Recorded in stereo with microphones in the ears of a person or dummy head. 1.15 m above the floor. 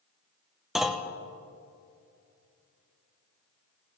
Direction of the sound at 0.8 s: Centre (ahead or behind).